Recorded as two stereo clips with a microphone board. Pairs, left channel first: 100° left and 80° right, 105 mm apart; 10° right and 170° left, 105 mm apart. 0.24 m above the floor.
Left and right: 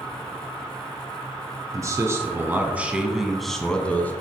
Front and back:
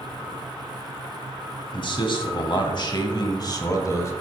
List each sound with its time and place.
1.7 s a man speaking: 30° right, 1.9 m; by 4.1 s 35° left, 1.5 m